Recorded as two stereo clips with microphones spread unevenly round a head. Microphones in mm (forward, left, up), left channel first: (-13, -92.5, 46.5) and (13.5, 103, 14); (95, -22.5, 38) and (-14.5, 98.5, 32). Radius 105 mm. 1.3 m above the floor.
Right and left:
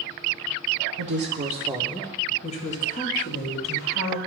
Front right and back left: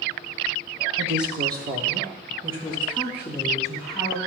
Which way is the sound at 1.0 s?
85° left.